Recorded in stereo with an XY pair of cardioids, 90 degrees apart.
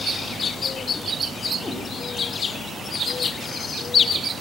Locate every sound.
1.6 s a cat meowing: 30° left, 1.7 m